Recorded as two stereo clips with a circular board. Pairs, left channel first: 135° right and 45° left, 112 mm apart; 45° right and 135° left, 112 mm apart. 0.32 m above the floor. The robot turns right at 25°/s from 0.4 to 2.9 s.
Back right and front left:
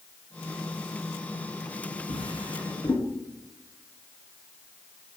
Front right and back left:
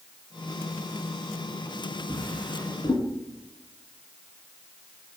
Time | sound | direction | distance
2.1 | a drawer | 110° right | 1.7 m